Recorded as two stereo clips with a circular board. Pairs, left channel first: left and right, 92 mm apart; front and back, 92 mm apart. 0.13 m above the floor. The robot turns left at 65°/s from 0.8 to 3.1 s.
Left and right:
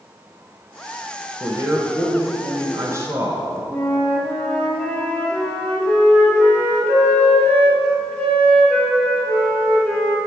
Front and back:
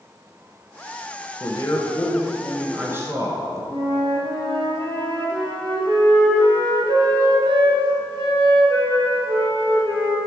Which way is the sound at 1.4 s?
30° right.